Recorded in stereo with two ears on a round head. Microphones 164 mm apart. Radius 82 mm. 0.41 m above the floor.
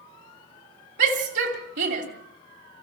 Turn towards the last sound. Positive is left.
turn(degrees=-65)  # may be behind; listen again after turning